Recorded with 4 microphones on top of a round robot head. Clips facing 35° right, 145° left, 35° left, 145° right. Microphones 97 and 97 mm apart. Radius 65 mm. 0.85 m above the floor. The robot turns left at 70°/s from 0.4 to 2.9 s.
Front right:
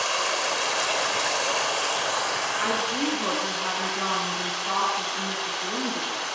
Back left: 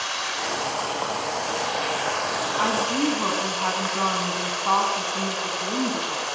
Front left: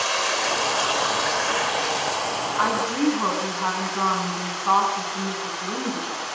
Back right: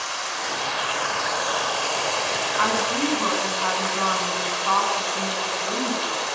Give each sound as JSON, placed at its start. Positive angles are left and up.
{"t": 0.0, "sound": "running water", "azimuth_deg": 5, "distance_m": 3.0}
{"t": 2.6, "sound": "a woman speaking", "azimuth_deg": 135, "distance_m": 8.0}